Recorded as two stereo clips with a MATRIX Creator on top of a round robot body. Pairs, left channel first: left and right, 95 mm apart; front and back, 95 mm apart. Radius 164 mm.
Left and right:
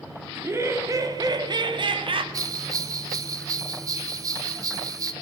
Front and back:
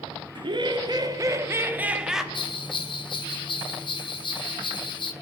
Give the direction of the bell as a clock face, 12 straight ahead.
1 o'clock.